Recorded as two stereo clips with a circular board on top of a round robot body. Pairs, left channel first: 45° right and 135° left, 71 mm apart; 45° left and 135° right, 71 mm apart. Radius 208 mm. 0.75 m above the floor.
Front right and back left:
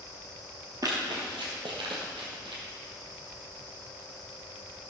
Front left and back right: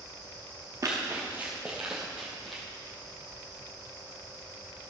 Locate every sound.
0.8 s running footsteps: 175° left, 1.1 m; by 2.6 s 130° left, 2 m